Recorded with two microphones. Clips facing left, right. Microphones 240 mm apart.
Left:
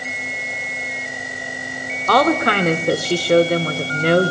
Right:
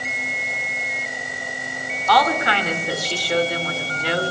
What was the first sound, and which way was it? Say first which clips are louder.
A woman speaking: left 5 dB; 55° left (ahead or behind).